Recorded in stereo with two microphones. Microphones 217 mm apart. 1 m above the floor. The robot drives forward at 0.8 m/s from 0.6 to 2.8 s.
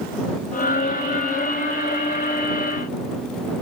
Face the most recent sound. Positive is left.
No sound to turn to.